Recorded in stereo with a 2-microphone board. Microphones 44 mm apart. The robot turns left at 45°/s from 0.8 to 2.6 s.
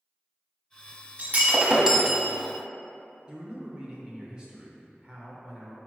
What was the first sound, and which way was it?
Breaking glass, 130° right.